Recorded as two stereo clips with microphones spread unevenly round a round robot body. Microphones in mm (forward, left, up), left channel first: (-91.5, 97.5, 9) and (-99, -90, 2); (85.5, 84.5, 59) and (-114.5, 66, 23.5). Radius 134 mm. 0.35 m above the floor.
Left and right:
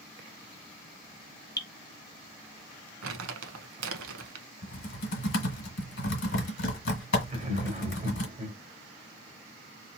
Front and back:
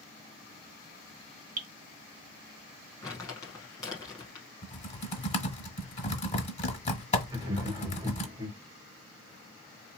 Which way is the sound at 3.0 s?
70° right.